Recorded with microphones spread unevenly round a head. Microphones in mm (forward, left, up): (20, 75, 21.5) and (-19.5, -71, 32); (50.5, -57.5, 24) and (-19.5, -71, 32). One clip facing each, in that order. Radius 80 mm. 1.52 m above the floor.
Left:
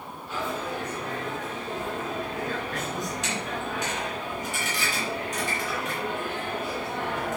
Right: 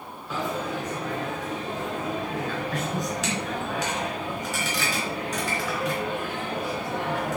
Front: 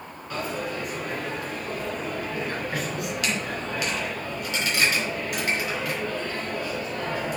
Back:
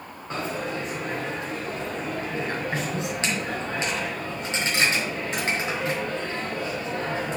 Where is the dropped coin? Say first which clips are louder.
Right 2 dB, back 1 dB; 115° right, 3.5 m.